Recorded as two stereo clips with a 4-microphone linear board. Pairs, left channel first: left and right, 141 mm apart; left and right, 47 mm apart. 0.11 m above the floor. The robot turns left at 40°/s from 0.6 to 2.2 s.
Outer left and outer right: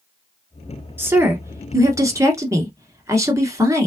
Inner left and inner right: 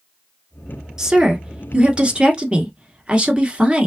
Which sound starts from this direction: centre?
A woman speaking, at 1.0 s.